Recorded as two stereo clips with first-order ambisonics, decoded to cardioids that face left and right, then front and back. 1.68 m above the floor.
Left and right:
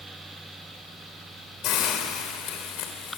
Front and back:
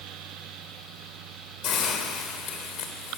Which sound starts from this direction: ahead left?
A hiss, at 1.6 s.